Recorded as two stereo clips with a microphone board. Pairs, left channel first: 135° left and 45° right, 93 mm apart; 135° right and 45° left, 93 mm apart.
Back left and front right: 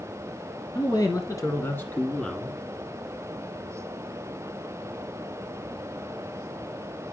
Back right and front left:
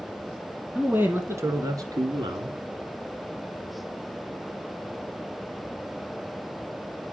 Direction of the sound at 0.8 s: 120° left.